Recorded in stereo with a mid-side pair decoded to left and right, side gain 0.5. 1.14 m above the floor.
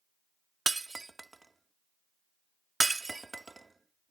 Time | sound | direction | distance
0.7 | breaking glass | 20° right | ?